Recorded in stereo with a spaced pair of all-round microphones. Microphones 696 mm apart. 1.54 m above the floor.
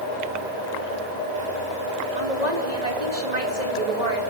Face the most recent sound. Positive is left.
turn(degrees=-70)  # may be behind; listen again after turning